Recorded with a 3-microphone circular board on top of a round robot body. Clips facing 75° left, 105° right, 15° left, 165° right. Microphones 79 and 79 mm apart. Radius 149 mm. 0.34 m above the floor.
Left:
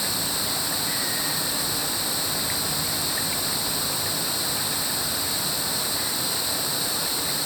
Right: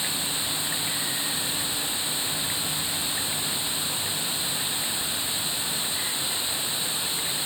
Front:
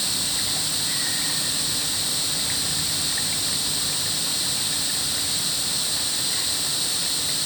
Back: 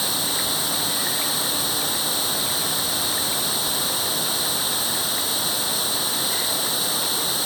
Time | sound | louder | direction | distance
0.0 | running water | left 3 dB, back 6 dB | 150° left | ?